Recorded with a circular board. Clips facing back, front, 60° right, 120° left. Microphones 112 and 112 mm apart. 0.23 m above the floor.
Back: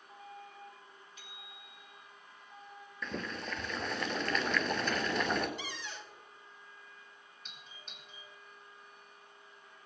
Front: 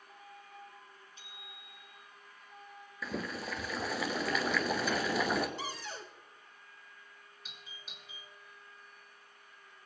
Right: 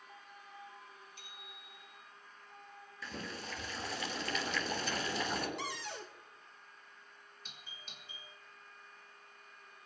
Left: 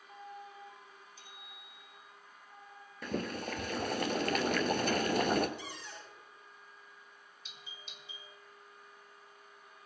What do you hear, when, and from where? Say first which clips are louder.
1.2 s a bicycle bell: back 1 dB, even; 60° right, 6 m
3.0 s boiling: front 1 dB, left 8 dB; 85° left, 1.3 m
5.6 s a cupboard door: front 3 dB, right 4 dB; 50° right, 1.4 m
7.5 s a doorbell: even, left 2 dB; 85° right, 3 m